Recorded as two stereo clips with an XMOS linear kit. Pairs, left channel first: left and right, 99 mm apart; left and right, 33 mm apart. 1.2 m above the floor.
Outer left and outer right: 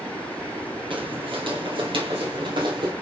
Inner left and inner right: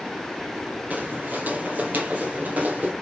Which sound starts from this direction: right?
Footsteps, at 0.9 s.